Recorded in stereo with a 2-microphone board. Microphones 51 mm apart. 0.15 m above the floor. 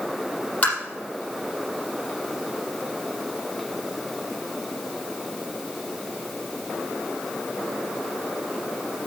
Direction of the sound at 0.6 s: 30° left (ahead or behind).